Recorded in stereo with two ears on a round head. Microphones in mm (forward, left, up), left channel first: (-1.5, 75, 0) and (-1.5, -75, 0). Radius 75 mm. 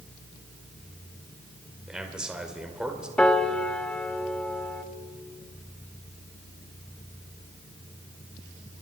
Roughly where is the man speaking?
Centre.